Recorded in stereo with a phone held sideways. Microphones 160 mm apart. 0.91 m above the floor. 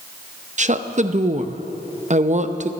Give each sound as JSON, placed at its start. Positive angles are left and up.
{"t": 0.6, "sound": "a woman speaking", "side_deg": -50, "distance_m": 0.6}